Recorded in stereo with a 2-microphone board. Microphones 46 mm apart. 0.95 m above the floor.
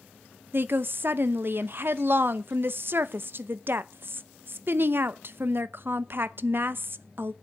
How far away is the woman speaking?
About 0.8 m.